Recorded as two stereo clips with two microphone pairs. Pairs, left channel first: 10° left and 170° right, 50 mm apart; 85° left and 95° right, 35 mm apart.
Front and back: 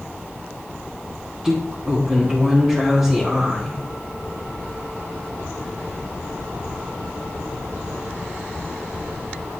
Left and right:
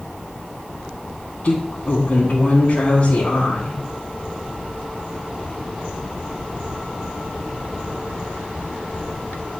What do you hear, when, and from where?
1.4 s a woman speaking: 115° left, 1.6 m